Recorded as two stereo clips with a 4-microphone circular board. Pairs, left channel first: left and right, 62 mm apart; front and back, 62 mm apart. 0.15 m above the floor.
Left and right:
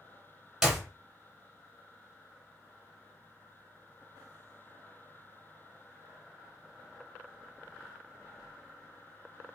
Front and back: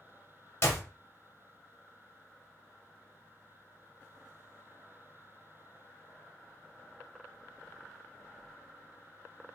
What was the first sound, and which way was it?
A clap, 10° right.